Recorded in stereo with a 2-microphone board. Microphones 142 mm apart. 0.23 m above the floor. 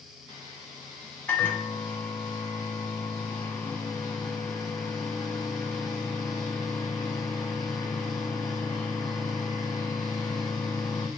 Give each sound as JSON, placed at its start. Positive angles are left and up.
{"t": 1.3, "sound": "a microwave", "side_deg": 10, "distance_m": 1.2}